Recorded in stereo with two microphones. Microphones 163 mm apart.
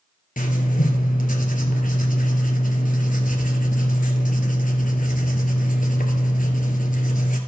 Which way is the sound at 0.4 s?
55° left (ahead or behind).